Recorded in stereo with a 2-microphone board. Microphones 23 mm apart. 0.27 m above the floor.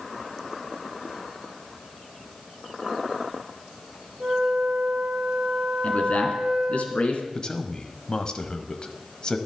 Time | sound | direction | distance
4.2 | a flute | 55° right (ahead or behind) | 1.9 m
5.8 | a man speaking | 65° left (ahead or behind) | 2.5 m
7.3 | a man speaking | 40° left (ahead or behind) | 1.2 m